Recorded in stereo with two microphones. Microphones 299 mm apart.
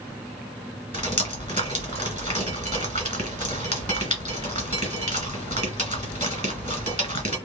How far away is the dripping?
About 1.7 m.